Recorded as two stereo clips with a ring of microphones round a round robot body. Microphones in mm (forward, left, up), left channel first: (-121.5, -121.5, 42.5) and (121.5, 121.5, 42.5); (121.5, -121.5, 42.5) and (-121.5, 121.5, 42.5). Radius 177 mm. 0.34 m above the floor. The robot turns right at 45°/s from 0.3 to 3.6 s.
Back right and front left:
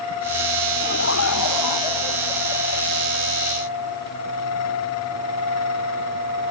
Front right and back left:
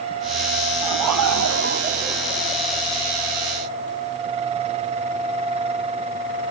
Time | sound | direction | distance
0.8 | laughter | 160° left | ?